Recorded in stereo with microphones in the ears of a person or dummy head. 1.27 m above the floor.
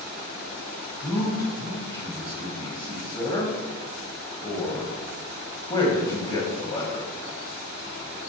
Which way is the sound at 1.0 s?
20° left (ahead or behind).